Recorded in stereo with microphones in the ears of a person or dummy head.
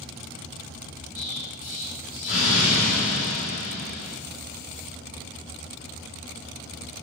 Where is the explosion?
45° left (ahead or behind), 6.5 m.